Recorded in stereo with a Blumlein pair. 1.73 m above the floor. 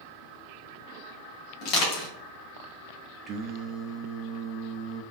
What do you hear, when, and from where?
1.6 s crushing: 35° left, 2 m
3.3 s singing: 25° right, 0.7 m